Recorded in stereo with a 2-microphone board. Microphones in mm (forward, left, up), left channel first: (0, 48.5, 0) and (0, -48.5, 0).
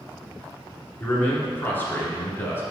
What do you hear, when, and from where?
1.0 s a man speaking: 20° left (ahead or behind), 1.5 m; by 2.6 s 25° left (ahead or behind), 1.5 m